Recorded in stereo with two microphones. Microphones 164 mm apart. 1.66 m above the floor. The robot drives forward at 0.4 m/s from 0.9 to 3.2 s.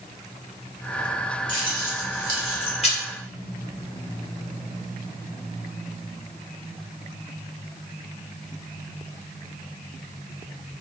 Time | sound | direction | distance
1.5 | keys jangling | 30° left (ahead or behind) | 1.2 m